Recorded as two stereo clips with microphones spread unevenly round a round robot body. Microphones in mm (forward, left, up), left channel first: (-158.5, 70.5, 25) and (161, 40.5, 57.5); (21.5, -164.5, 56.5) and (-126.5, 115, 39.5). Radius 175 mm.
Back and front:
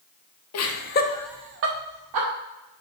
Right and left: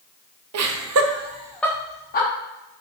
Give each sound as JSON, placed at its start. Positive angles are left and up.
{"t": 0.5, "sound": "laughter", "azimuth_deg": 145, "distance_m": 1.1}